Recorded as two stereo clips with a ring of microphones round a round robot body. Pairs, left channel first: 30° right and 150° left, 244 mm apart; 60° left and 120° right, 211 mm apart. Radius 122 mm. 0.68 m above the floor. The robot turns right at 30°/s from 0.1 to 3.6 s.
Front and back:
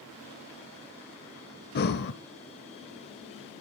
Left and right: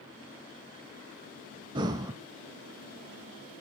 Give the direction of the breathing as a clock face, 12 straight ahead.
2 o'clock.